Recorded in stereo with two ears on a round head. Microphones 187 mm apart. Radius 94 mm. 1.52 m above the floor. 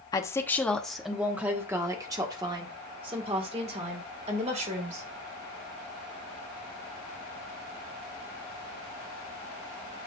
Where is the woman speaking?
20° left (ahead or behind), 1.1 m; by 5.1 s 35° right (ahead or behind), 3 m.